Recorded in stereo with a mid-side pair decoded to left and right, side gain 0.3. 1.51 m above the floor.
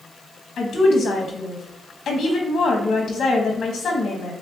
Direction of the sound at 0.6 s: 70° left.